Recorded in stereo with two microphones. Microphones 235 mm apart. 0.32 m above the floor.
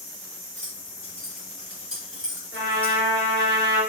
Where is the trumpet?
55° right (ahead or behind), 3.5 m.